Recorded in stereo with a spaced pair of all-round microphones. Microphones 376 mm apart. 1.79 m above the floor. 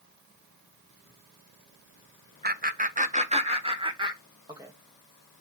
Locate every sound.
2.4 s laughter: 25° right (ahead or behind), 0.8 m; by 4.7 s 10° right (ahead or behind), 1.9 m